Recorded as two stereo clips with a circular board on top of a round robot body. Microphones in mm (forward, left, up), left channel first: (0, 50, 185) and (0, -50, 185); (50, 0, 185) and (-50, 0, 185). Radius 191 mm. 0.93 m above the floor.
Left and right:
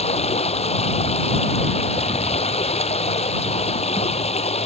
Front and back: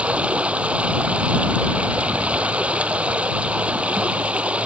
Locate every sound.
0.0 s running water: 100° left